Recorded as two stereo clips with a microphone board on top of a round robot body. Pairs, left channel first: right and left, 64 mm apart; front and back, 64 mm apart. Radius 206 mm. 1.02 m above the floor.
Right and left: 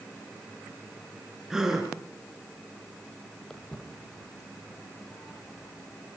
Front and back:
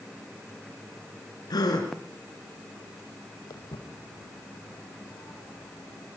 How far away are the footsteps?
About 2.5 m.